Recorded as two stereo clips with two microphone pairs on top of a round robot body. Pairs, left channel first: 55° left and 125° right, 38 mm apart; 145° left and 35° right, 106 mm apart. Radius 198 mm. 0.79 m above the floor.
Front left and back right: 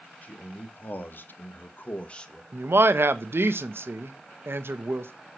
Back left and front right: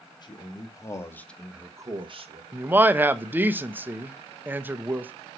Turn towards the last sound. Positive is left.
turn(degrees=-105)